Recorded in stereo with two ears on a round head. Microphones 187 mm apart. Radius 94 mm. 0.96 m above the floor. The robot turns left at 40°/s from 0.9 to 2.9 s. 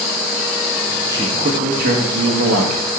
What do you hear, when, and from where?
1.1 s a man speaking: 15° right, 1.2 m; by 2.9 s 90° right, 1.2 m